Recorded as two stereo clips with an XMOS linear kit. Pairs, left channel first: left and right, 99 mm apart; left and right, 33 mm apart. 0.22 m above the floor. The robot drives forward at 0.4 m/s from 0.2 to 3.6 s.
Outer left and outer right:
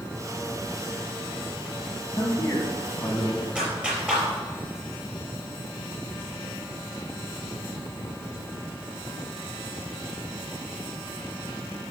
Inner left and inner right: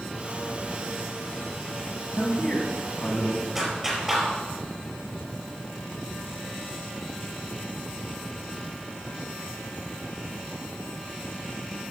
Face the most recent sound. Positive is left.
turn(degrees=-10)  # may be behind; listen again after turning